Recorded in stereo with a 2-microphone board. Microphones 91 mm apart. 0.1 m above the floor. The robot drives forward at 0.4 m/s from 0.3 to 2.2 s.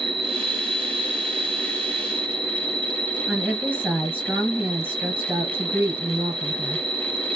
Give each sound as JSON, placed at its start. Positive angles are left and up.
{"t": 0.0, "sound": "an insect", "side_deg": -60, "distance_m": 0.8}
{"t": 3.3, "sound": "a woman speaking", "side_deg": -20, "distance_m": 1.3}